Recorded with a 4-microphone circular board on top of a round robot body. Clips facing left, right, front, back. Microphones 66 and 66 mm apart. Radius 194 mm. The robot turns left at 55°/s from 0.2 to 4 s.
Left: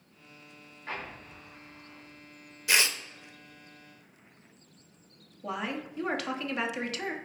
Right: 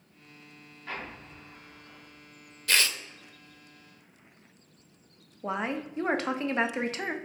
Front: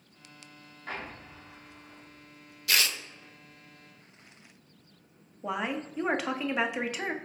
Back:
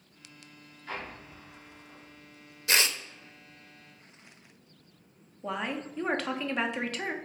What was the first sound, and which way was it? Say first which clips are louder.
An explosion: even, even; 25° left.